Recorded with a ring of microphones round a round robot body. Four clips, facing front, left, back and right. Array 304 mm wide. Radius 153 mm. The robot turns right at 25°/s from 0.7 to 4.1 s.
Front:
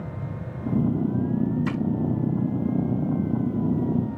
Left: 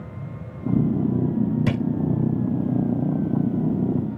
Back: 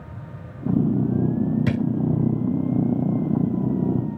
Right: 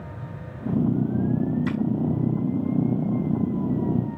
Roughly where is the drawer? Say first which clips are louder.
Left 1 dB, back 3 dB; behind left.